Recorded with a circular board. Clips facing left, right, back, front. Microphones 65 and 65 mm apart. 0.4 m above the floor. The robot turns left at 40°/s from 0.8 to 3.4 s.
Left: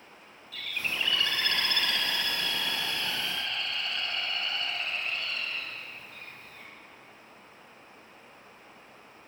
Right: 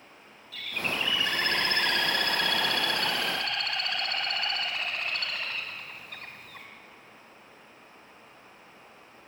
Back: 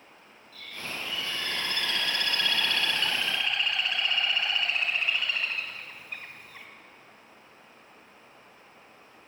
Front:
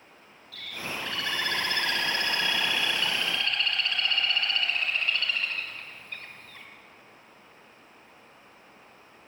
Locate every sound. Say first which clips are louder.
0.5 s a bird: right 2 dB, front 2 dB; straight ahead, 3.5 m; by 6.7 s 105° right, 3.5 m